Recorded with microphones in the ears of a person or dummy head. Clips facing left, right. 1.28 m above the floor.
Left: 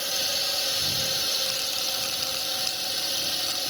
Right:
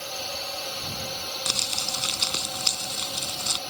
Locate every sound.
0.0 s a drone: 20° left (ahead or behind)
1.5 s crumpling: 75° right (ahead or behind)